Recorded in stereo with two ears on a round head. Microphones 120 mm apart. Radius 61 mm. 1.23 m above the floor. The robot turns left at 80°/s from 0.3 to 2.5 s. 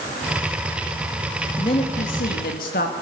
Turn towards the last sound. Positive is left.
turn(degrees=75)